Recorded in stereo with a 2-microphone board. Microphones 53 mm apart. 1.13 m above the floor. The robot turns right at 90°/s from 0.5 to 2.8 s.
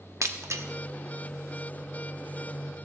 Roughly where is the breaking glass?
Right.